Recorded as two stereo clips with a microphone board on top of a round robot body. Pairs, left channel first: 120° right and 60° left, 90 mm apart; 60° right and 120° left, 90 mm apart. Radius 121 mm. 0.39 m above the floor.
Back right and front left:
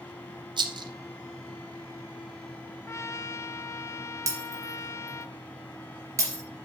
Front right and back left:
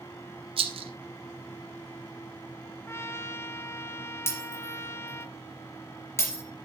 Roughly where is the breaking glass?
Ahead.